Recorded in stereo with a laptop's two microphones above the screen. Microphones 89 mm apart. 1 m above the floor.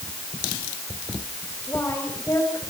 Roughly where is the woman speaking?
Left.